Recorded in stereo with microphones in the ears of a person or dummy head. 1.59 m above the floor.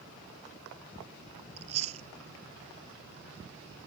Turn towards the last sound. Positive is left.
turn(degrees=-40)  # may be behind; listen again after turning